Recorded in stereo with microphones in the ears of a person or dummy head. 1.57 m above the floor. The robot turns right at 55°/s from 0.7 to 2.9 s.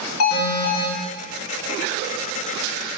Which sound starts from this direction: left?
An alarm, at 0.2 s.